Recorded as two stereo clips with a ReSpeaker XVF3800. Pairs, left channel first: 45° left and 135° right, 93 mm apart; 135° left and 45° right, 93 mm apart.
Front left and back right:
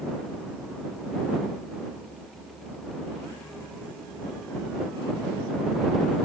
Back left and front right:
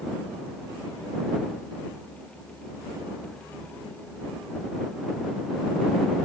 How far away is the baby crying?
No baby crying in this recording.